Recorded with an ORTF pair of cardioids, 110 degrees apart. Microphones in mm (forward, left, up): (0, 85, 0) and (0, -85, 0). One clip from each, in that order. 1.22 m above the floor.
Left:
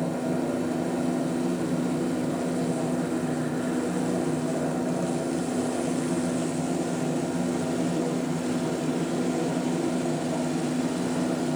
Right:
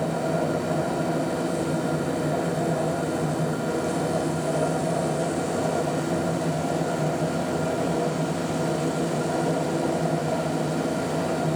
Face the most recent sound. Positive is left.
turn(degrees=-50)